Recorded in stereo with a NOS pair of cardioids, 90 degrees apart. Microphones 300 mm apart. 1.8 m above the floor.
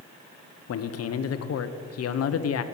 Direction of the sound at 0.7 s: 55° left.